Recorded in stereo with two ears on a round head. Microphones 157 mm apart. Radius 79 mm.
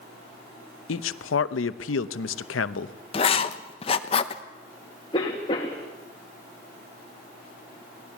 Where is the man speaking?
85° left, 0.8 m.